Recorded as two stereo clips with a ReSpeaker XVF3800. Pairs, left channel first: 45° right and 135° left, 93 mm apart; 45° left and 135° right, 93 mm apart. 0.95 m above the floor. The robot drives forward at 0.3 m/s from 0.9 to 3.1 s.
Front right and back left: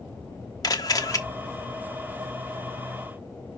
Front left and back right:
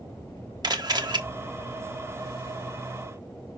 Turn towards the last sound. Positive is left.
turn(degrees=-120)